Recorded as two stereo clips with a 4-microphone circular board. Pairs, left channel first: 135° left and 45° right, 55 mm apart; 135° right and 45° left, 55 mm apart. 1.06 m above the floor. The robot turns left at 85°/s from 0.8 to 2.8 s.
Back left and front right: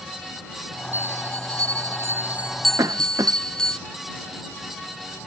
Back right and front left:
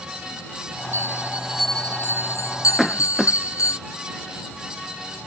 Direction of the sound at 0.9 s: 10° left.